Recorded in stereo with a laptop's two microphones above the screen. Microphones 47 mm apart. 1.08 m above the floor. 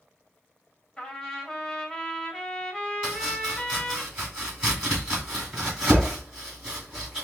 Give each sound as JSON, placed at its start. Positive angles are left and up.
{"t": 1.0, "sound": "a trumpet", "side_deg": 10, "distance_m": 1.7}
{"t": 3.0, "sound": "chopping", "side_deg": -20, "distance_m": 3.0}